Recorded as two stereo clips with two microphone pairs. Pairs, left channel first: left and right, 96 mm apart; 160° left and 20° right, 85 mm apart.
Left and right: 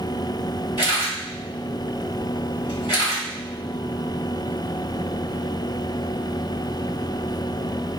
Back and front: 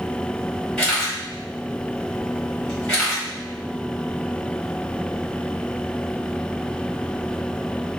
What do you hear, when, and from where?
0.8 s a camera shutter: 85° left, 1.6 m